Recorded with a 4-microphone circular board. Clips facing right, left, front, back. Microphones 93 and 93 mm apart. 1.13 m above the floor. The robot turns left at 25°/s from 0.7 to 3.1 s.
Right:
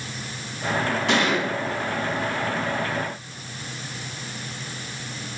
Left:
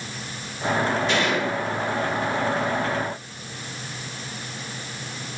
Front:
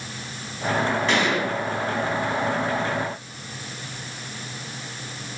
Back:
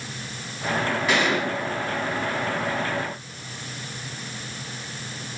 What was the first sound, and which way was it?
A gunshot, 95° right.